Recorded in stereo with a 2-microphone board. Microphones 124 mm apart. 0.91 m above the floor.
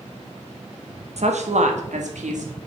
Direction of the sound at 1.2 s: 60° right (ahead or behind).